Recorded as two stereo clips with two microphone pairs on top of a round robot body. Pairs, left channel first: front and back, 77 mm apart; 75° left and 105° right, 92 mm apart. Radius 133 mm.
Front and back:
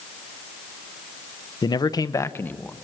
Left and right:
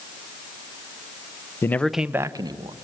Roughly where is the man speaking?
Ahead.